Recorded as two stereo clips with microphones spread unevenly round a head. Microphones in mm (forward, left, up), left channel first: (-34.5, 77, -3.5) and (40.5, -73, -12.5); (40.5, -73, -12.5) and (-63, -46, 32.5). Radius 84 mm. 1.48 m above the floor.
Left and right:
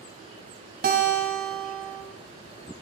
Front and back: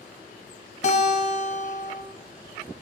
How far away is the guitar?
About 2.5 m.